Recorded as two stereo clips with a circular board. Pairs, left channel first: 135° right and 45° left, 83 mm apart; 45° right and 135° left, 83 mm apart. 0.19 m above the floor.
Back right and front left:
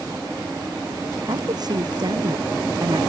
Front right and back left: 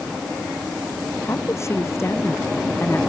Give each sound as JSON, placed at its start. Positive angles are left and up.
{"t": 1.2, "sound": "a woman speaking", "azimuth_deg": 10}